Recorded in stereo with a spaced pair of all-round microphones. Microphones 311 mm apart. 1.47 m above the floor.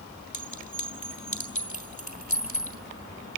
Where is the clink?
70° left (ahead or behind), 2.5 m.